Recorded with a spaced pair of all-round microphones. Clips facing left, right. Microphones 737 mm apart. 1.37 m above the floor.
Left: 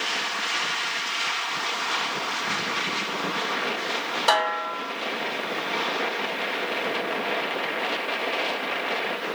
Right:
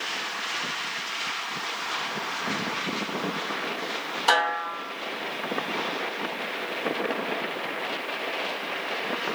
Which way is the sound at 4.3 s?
15° left (ahead or behind).